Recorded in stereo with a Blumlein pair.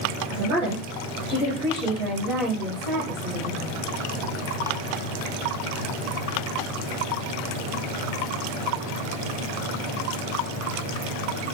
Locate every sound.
0.3 s a woman speaking: 40° right, 2.5 m; by 3.7 s 5° right, 3 m